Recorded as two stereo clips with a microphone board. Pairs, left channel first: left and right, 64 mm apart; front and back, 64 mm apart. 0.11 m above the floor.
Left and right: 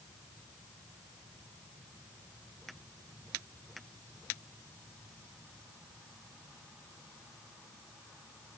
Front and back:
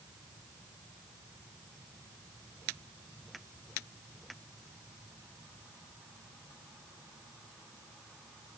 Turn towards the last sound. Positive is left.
No sound to turn to.